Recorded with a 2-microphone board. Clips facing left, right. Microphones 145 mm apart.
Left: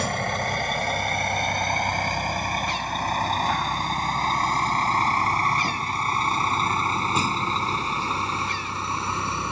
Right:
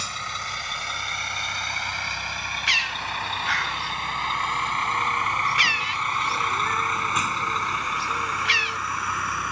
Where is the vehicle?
55° left (ahead or behind); by 9.5 s 25° left (ahead or behind).